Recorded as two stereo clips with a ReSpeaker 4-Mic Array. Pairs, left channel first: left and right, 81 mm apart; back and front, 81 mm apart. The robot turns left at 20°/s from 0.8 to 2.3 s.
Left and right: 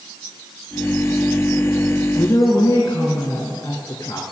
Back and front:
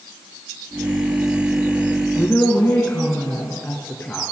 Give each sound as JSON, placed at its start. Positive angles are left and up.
{"t": 2.1, "sound": "a woman speaking", "azimuth_deg": 125, "distance_m": 2.5}